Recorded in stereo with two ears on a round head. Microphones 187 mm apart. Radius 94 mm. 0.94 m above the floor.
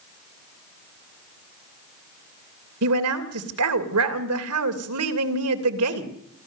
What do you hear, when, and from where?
2.8 s a woman speaking: 85° right, 3 m